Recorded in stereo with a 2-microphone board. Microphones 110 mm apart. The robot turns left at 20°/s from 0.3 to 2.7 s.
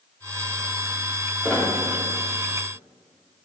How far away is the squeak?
About 1.8 m.